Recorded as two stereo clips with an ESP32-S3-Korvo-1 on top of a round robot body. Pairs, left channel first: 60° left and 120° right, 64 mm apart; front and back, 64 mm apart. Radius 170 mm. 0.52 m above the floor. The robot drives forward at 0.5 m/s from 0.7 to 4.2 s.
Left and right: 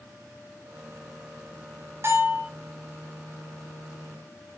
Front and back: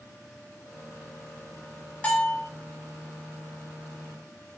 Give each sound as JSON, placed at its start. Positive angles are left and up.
{"t": 2.0, "sound": "a bell", "azimuth_deg": -70, "distance_m": 8.0}